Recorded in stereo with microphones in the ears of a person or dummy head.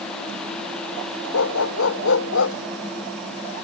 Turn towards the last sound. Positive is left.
turn(degrees=70)  # may be behind; listen again after turning